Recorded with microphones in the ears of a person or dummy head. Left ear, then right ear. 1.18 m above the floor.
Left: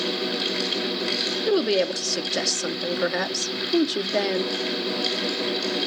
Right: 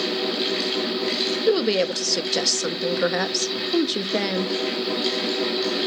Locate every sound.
0.0 s a fan: 5° left (ahead or behind), 6 m
1.5 s a woman speaking: centre (ahead or behind), 0.8 m